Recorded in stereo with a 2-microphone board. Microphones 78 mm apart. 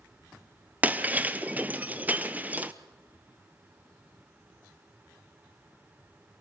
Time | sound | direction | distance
0.8 | breaking glass | 20° right (ahead or behind) | 0.9 m